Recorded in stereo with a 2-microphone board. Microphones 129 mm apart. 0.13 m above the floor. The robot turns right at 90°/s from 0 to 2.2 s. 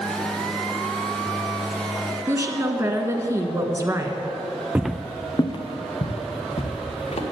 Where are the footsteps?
15° right (ahead or behind), 0.5 m; by 7.2 s 60° left (ahead or behind), 2.5 m.